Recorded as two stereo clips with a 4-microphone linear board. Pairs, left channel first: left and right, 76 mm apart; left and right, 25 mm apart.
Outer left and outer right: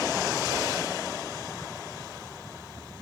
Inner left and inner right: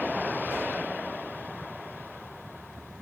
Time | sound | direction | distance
0.5 | a whoosh | 75° right (ahead or behind) | 3.5 m